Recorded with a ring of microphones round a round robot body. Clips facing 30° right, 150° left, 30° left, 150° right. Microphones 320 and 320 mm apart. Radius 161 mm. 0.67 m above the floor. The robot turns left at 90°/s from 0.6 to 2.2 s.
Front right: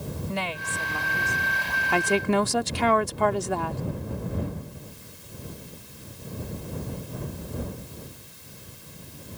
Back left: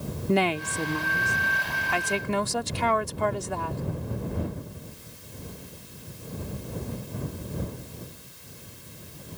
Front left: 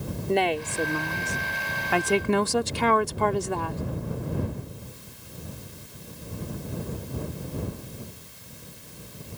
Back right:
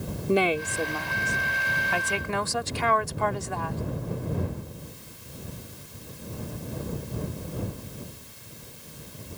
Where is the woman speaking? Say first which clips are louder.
Back left 13 dB, back right 1 dB; 125° left; by 3.8 s 15° right.